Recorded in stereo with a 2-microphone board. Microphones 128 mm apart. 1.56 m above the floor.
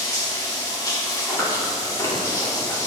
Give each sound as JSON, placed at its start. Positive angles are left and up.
{"t": 0.0, "sound": "running water", "side_deg": 25, "distance_m": 1.2}
{"t": 1.3, "sound": "chewing", "side_deg": 25, "distance_m": 2.5}